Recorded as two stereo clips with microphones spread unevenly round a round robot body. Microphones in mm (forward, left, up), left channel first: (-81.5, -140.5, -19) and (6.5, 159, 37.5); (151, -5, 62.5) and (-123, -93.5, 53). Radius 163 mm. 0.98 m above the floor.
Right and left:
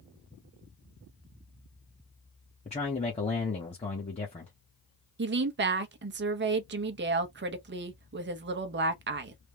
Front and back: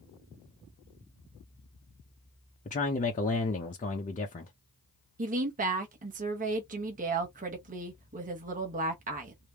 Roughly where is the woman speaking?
Behind left.